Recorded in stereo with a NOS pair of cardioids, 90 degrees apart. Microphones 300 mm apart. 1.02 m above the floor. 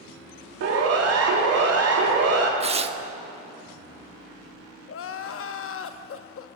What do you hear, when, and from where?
0.6 s a siren: 55° right, 3 m
2.6 s tearing paper: 20° right, 0.9 m
4.9 s crying: 45° left, 0.9 m